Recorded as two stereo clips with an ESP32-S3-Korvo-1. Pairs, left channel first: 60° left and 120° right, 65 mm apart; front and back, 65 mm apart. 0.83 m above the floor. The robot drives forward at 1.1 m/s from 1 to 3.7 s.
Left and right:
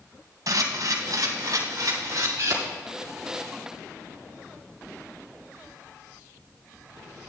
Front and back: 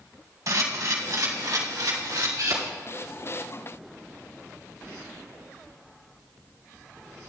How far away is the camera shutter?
About 2.5 m.